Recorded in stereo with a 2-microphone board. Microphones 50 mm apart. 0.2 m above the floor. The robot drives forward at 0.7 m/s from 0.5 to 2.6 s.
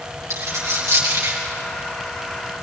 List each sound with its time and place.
0.3 s a dropped coin: 65° right (ahead or behind), 7.5 m; by 1.4 s 60° right (ahead or behind), 7.5 m